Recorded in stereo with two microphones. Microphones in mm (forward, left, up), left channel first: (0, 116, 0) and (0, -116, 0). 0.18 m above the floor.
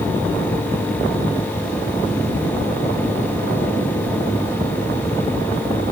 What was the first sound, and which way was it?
Only background noise.